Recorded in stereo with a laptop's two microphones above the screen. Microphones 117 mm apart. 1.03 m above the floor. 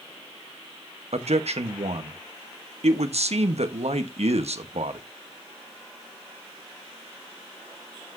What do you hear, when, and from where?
1.1 s a man speaking: 70° right (ahead or behind), 0.9 m